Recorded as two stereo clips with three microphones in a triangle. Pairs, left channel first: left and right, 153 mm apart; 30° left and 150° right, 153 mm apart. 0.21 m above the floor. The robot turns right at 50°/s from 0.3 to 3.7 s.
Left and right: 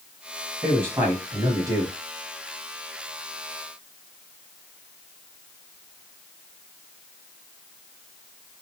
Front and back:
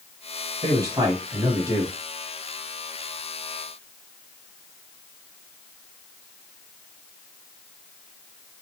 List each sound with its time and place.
0.6 s a man speaking: 155° right, 1.1 m; by 2.0 s 90° right, 1.1 m